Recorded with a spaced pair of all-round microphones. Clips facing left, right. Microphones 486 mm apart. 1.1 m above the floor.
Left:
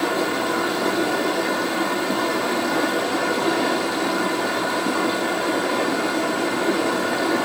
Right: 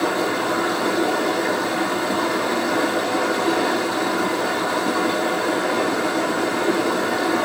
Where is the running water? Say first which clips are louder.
Right 1 dB; 10° left (ahead or behind), 4 m.